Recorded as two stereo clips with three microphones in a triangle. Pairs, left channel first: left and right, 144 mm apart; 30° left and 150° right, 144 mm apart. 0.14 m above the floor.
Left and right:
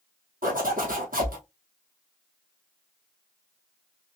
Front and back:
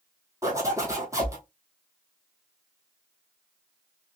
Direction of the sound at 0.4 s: 80° right.